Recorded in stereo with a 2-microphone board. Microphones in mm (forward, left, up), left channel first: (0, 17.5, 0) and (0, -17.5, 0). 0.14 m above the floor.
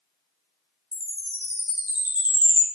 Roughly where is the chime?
Right.